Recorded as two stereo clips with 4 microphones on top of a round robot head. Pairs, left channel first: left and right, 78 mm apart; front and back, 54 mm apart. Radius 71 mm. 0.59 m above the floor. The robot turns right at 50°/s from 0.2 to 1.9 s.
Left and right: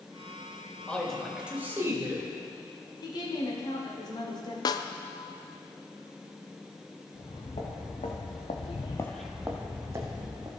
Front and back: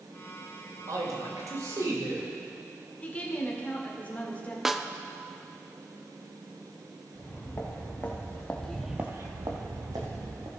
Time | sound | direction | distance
0.9 | a man speaking | 165° left | 2.5 m
3.0 | a woman speaking | 60° left | 1.9 m
4.7 | a snare drum | 100° left | 0.5 m
7.2 | footsteps | 50° left | 3 m